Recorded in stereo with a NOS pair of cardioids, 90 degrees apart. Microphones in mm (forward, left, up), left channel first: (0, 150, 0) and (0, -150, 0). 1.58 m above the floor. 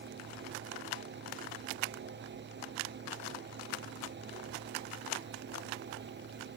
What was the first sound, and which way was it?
A fan, 40° right.